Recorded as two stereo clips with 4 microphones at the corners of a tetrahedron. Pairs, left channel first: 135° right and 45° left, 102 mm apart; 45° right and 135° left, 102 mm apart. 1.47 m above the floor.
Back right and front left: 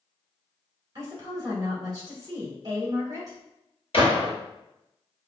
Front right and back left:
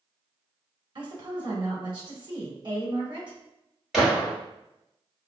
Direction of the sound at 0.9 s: 95° left.